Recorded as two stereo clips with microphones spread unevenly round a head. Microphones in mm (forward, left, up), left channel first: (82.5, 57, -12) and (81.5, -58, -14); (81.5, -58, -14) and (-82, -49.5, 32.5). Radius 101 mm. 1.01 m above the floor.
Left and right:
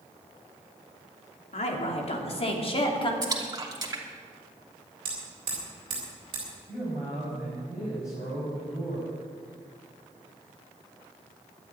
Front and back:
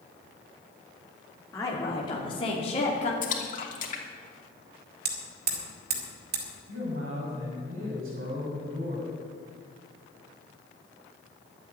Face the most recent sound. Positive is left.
turn(degrees=160)